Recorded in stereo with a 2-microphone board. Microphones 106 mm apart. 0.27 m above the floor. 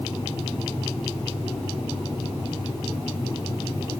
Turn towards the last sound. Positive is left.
No sound to turn to.